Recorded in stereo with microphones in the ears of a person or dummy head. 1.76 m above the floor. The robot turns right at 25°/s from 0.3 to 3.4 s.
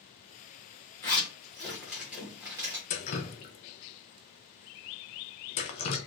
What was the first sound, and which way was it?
A zipper, 10° left (ahead or behind).